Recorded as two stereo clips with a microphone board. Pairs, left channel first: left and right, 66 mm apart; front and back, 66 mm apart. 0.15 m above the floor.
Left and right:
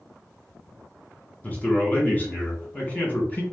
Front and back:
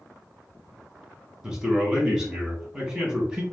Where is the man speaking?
110° left, 1.1 m.